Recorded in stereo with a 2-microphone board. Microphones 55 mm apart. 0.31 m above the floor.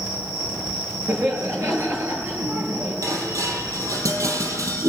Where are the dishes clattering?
70° right (ahead or behind), 5.5 m.